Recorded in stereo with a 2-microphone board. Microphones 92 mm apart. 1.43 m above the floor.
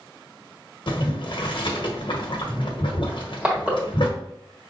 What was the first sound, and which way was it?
Boiling, 60° left (ahead or behind).